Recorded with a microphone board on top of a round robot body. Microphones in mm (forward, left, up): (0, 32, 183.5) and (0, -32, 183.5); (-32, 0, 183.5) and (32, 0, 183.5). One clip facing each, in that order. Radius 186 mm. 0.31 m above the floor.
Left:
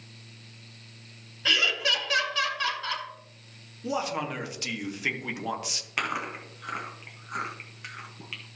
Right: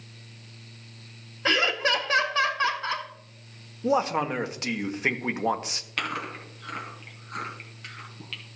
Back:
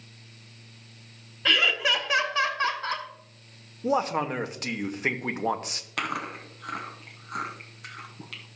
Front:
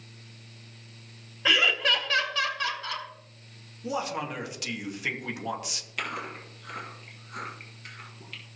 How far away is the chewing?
About 1.7 m.